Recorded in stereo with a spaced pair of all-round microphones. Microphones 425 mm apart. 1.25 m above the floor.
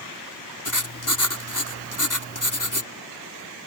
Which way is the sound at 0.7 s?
45° left (ahead or behind).